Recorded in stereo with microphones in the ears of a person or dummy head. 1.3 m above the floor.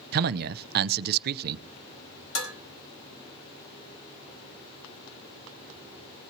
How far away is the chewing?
I don't hear chewing.